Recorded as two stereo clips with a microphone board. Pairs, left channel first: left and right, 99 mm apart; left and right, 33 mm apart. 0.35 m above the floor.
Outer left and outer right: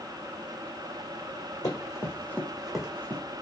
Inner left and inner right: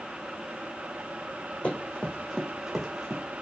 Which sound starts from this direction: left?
Running footsteps, at 1.6 s.